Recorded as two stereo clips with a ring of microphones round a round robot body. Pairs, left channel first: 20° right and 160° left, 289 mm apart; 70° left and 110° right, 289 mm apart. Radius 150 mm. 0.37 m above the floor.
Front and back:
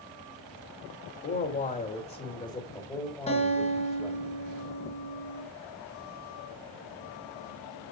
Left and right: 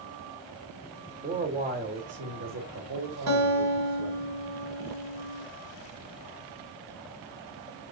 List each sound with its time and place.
1.2 s a man speaking: 60° right, 1.6 m; by 4.3 s 115° right, 2.5 m
3.3 s a guitar: 90° right, 3 m